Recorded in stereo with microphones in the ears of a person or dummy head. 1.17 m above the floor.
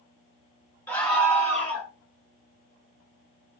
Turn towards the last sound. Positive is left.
turn(degrees=0)  # may be behind; listen again after turning